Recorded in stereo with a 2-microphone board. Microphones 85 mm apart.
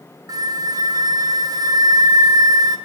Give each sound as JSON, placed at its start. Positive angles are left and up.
{"t": 0.3, "sound": "a flute", "side_deg": -50, "distance_m": 0.7}